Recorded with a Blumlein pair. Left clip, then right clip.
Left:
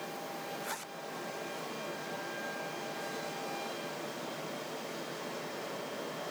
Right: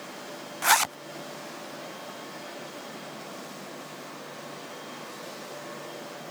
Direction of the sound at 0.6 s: 40° right.